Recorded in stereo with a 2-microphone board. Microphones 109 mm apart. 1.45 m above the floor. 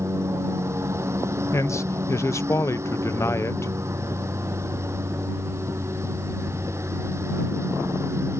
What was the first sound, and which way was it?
A lawn mower, 25° right (ahead or behind).